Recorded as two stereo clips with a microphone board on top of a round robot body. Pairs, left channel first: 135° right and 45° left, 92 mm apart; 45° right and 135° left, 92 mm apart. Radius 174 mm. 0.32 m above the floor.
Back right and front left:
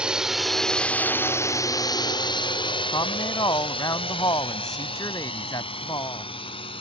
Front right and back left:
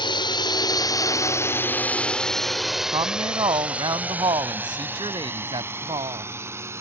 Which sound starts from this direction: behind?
A woman speaking, at 2.9 s.